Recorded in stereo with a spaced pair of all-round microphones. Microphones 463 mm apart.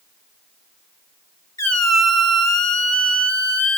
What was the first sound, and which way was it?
A squeak, 35° left (ahead or behind).